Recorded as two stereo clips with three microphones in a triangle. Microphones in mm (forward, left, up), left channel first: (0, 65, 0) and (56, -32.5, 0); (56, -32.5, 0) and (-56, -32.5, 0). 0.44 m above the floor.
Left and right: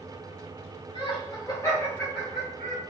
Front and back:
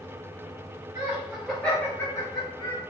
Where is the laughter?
130° left, 1.5 m; by 2.8 s 20° left, 2 m.